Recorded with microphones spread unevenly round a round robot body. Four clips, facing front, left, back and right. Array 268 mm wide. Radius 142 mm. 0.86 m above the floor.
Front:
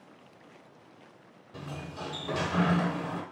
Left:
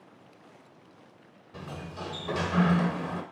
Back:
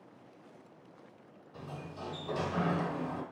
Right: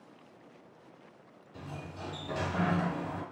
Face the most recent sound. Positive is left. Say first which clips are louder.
# left 4 dB, front 4 dB
turn(degrees=55)